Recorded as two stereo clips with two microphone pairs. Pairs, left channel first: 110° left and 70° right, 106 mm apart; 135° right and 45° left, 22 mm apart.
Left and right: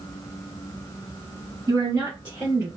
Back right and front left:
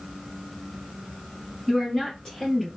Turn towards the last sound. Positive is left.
turn(degrees=-95)